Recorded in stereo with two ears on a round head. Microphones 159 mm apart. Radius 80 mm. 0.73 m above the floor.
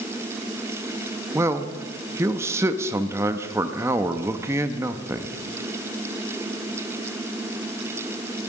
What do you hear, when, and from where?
1.4 s a man speaking: 15° right (ahead or behind), 0.8 m